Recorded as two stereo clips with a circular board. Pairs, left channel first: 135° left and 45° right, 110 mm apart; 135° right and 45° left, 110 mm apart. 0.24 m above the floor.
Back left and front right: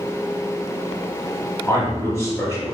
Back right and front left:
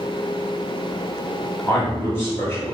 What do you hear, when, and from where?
1.7 s a man speaking: 175° left, 1.9 m